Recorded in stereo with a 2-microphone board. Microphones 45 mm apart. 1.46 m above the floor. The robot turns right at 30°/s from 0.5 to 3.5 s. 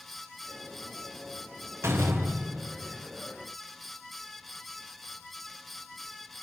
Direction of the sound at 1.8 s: 95° right.